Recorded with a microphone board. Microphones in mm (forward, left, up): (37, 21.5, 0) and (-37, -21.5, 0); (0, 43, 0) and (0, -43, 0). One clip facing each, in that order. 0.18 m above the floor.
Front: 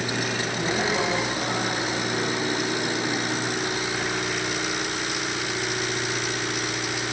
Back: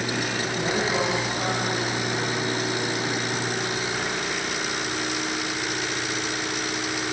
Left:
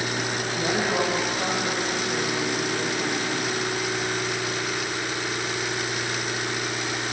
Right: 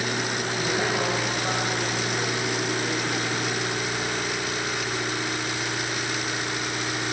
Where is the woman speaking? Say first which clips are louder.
Back 1 dB, left 2 dB; 140° left, 7 m; by 3.6 s 135° left, 5 m.